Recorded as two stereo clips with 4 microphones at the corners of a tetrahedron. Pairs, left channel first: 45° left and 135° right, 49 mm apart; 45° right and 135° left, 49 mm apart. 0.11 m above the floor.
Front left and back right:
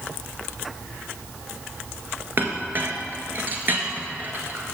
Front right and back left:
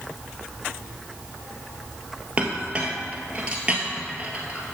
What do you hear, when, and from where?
2.4 s a clink: 165° right, 1.6 m